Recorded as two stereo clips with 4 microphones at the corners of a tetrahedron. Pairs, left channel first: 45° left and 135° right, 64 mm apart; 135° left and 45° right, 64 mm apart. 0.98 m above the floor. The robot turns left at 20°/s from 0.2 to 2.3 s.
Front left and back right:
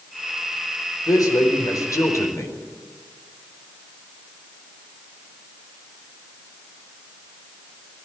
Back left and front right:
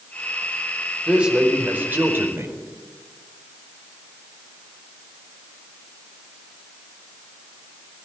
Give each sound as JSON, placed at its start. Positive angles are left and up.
{"t": 1.1, "sound": "a man speaking", "azimuth_deg": 30, "distance_m": 4.5}